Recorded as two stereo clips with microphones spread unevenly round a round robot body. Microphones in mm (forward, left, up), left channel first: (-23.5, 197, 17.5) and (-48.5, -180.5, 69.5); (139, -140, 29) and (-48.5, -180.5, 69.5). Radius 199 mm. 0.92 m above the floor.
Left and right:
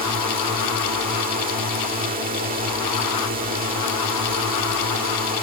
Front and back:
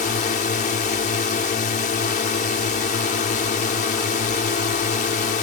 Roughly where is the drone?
Ahead right.